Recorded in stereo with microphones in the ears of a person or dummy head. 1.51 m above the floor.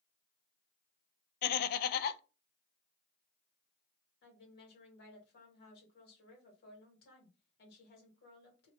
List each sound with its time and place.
1.4 s laughter: 55° left (ahead or behind), 0.5 m
4.2 s a woman speaking: 65° left (ahead or behind), 1.9 m